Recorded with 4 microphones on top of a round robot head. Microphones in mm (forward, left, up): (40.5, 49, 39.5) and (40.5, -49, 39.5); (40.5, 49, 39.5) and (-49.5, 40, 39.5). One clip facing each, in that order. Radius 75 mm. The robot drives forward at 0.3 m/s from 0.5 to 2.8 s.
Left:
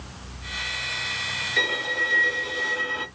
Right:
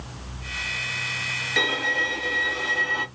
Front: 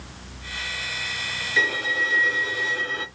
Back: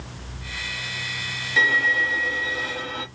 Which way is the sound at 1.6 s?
110° right.